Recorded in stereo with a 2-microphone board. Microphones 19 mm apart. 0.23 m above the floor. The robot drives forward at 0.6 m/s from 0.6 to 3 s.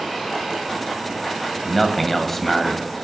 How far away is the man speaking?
About 1.0 m.